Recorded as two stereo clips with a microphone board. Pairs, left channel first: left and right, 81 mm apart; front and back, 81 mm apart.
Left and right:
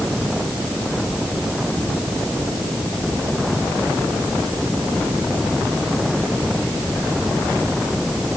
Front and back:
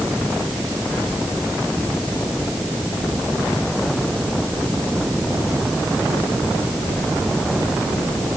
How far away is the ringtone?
No ringtone in this recording.